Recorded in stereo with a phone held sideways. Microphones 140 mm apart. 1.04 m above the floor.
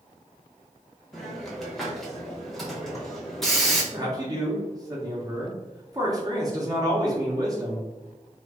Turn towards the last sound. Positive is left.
turn(degrees=-25)  # may be behind; listen again after turning